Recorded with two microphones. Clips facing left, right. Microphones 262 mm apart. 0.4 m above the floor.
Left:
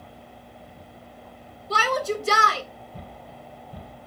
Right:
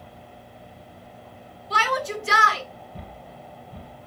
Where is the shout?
45° left (ahead or behind), 1.9 m.